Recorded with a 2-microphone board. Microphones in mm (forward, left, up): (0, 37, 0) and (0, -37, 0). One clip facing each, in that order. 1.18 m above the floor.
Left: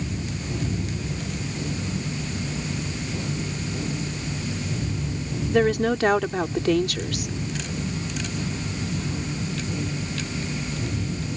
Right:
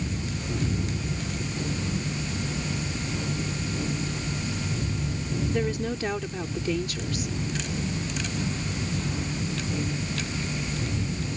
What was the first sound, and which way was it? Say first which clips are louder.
A woman speaking: left 11 dB; 70° left (ahead or behind).